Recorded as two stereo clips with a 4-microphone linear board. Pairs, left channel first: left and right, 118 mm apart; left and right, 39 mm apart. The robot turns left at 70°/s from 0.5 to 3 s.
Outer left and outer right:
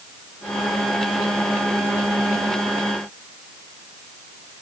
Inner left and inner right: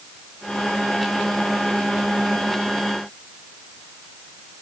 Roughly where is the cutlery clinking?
I don't hear cutlery clinking.